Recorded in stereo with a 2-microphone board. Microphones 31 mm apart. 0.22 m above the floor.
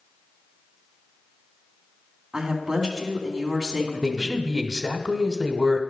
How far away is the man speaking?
About 0.9 m.